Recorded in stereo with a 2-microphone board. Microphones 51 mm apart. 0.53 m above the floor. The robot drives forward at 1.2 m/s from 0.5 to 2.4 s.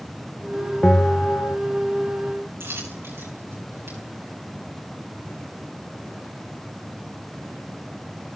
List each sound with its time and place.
0.8 s a bell: 20° left (ahead or behind), 1.2 m; by 1.6 s 45° left (ahead or behind), 0.5 m
2.6 s a dropped coin: 50° right (ahead or behind), 9.5 m